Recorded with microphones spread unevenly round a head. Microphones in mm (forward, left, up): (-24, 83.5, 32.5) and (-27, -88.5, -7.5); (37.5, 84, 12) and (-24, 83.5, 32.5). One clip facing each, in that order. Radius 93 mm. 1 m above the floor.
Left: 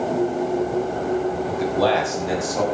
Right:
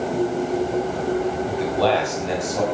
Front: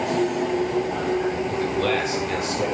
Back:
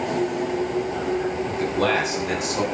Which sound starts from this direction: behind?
A man speaking, at 1.5 s.